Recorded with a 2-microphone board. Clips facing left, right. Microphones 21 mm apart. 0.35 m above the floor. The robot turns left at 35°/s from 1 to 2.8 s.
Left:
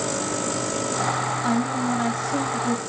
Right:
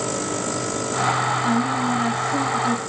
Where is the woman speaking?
175° left, 5.5 m; by 2.8 s 130° left, 5.5 m.